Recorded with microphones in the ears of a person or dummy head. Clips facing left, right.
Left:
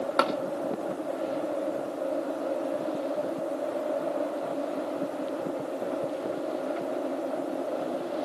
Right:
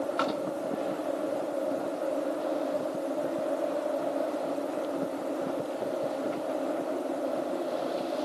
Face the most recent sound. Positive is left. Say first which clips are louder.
# left 6 dB
turn(degrees=65)  # may be behind; listen again after turning